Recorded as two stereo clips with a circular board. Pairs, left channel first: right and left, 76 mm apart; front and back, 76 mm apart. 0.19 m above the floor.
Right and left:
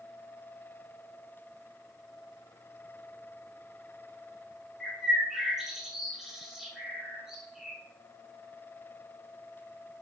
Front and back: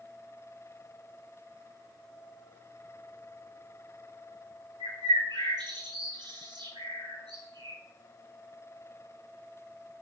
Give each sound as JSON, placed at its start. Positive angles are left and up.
{"t": 4.8, "sound": "a bird", "azimuth_deg": 175, "distance_m": 1.0}